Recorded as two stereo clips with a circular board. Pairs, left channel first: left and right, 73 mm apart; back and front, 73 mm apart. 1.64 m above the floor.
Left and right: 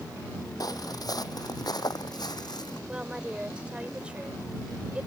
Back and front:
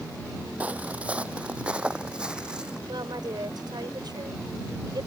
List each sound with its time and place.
0.6 s footsteps: 70° left; by 2.8 s 80° left
2.9 s a woman speaking: 15° right